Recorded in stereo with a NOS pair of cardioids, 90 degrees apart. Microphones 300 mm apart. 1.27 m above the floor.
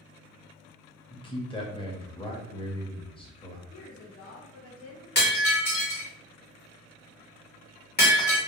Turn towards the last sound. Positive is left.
turn(degrees=35)